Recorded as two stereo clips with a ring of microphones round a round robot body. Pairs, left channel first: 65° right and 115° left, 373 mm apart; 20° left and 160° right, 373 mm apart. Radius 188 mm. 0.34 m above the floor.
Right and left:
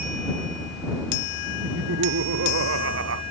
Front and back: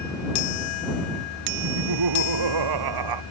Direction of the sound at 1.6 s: 170° left.